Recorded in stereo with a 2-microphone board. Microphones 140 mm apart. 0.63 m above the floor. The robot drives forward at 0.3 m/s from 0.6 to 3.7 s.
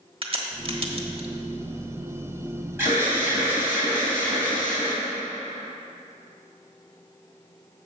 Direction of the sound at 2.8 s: 15° right (ahead or behind).